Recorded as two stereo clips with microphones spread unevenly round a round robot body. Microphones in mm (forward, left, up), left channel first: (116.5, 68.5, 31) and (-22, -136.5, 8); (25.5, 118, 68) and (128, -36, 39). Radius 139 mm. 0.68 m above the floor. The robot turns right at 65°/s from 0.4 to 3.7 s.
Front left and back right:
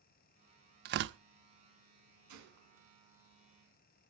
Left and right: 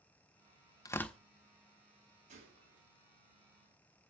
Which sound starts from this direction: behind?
Tearing paper, at 0.8 s.